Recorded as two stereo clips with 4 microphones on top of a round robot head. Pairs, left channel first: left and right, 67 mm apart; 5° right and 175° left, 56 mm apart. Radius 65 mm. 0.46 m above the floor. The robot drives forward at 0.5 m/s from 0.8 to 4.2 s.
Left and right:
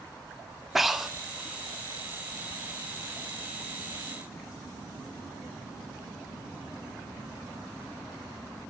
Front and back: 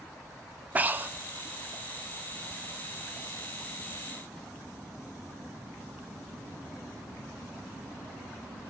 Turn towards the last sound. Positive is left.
turn(degrees=180)